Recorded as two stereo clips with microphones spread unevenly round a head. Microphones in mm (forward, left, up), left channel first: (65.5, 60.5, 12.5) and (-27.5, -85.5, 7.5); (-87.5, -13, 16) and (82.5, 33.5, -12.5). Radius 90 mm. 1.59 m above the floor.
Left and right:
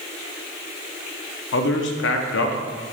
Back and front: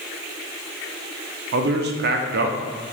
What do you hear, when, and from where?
1.5 s a man speaking: 45° left, 0.6 m